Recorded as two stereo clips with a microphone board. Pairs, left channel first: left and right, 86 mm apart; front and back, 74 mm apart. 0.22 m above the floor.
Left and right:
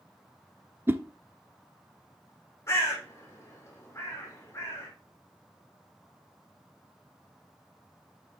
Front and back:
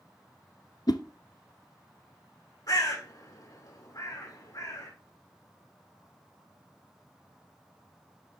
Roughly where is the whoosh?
Ahead right.